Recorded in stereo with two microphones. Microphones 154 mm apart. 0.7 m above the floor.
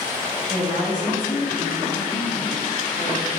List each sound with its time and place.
0.5 s a woman speaking: 25° right (ahead or behind), 4.5 m